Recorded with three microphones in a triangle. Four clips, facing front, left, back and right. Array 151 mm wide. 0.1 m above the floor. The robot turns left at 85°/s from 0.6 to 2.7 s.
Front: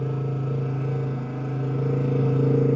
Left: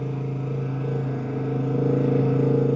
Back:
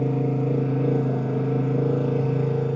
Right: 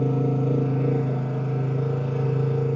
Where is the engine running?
135° right, 5.5 m; by 2.8 s 45° left, 5.5 m.